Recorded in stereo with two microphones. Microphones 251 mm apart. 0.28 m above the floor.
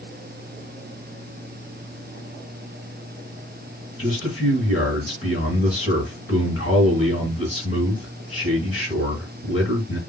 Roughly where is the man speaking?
Left.